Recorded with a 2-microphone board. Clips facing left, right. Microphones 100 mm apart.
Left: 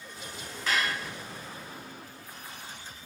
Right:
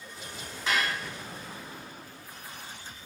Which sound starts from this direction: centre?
Dishes clattering, at 0.7 s.